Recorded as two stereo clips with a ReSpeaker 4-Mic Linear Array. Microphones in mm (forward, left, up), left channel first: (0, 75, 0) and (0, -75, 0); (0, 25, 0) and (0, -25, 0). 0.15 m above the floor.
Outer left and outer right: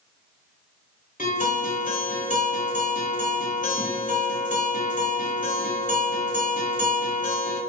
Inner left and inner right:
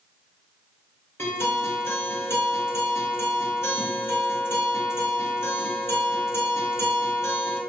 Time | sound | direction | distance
1.2 | a guitar | 60° left (ahead or behind) | 1.6 m